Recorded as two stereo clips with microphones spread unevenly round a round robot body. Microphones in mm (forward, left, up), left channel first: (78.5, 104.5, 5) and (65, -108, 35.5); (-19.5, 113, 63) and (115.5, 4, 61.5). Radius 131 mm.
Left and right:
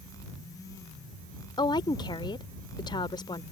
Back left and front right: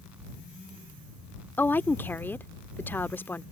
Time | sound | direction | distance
1.6 | a woman speaking | 75° left | ?